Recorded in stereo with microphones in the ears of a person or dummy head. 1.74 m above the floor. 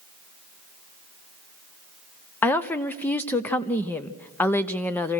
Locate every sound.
2.4 s a woman speaking: 15° left (ahead or behind), 0.6 m